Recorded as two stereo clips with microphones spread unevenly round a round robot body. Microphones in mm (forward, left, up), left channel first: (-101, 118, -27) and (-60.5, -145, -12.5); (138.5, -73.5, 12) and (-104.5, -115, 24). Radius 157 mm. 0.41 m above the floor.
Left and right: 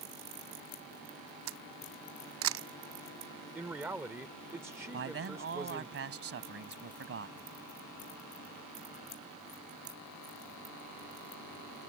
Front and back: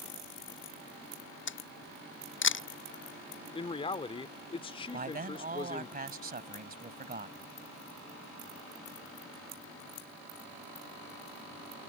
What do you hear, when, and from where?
1.5 s a camera shutter: 30° right
3.5 s a man speaking: 5° right
4.9 s a man speaking: 115° right